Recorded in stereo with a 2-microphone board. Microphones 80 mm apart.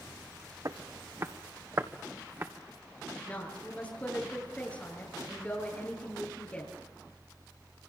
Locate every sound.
0.7 s footsteps: 45° right (ahead or behind), 1.4 m; by 2.5 s 30° right (ahead or behind), 2 m
3.1 s a woman speaking: 15° left (ahead or behind), 9 m